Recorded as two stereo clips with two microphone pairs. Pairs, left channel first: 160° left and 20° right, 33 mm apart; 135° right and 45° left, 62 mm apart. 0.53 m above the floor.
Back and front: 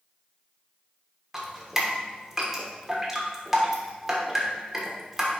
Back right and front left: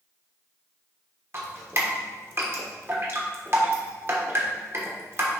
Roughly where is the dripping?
Ahead left.